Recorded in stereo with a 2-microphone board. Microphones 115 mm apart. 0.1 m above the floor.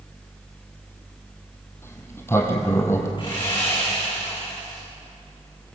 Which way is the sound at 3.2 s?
40° left (ahead or behind).